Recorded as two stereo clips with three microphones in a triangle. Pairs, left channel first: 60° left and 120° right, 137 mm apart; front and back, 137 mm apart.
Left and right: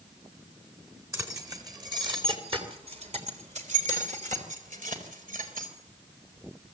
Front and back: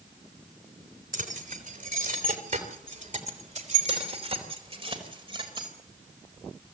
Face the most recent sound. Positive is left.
turn(degrees=-125)